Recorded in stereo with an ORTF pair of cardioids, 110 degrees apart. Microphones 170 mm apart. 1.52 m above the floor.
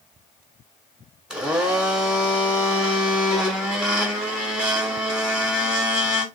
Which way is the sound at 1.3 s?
5° right.